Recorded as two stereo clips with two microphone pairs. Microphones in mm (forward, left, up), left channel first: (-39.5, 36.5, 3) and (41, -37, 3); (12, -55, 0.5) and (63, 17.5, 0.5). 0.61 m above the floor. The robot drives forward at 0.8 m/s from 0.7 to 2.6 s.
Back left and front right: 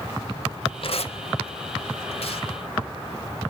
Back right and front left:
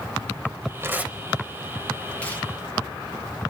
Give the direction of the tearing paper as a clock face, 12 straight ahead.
8 o'clock.